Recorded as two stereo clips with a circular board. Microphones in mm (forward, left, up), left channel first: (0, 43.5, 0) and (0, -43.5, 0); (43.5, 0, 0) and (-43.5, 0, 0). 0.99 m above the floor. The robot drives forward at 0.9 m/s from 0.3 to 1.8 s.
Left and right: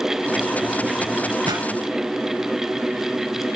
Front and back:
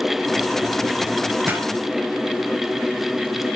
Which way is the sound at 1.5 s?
115° right.